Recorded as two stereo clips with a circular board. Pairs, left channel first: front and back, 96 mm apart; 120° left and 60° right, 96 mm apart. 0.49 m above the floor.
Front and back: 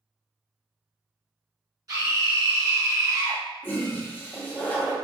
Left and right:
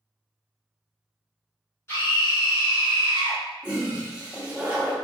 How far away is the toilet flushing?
About 0.8 m.